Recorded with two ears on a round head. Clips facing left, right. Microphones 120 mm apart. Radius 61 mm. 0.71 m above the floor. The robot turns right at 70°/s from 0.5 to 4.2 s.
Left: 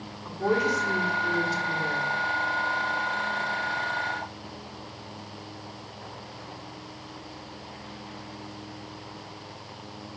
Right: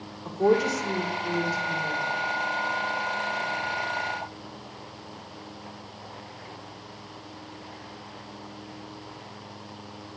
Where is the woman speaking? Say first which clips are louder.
Right 3 dB; 40° right, 1.6 m; by 2.1 s 70° left, 1.6 m.